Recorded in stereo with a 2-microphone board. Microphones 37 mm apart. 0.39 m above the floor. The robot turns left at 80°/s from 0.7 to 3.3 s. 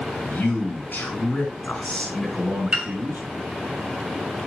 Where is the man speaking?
125° left, 3.5 m; by 3.2 s 75° right, 3.5 m.